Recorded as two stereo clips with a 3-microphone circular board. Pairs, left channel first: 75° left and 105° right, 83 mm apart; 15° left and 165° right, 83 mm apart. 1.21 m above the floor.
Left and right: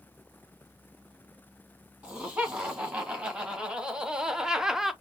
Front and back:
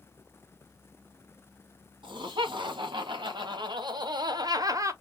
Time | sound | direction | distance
2.0 | laughter | straight behind | 2 m